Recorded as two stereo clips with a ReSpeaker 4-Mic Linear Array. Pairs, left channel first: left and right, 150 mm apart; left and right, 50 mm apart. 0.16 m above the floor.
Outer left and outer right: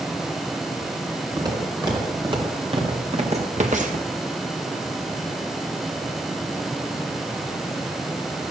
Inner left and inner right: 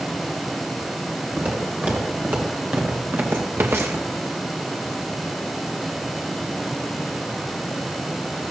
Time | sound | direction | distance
1.4 | footsteps | 30° right (ahead or behind) | 4.5 m